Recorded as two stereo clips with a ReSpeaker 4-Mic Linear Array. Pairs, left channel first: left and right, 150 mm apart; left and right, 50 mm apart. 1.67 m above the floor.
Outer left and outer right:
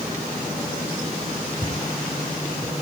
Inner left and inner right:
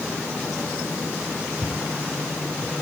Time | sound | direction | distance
1.6 | footsteps | 40° right (ahead or behind) | 4.5 m